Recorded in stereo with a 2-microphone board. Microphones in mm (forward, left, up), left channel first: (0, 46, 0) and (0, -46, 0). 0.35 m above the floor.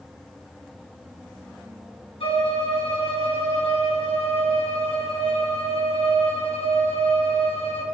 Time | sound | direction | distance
2.2 | a violin | 80° left | 3.5 m